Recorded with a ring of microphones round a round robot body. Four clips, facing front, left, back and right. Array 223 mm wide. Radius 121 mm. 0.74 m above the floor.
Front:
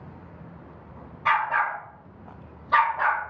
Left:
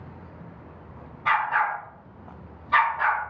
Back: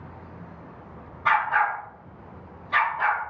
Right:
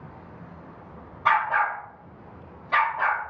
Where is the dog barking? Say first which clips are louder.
Right 1 dB, back 1 dB; 65° right, 1.3 m; by 3.3 s 10° right, 1.2 m.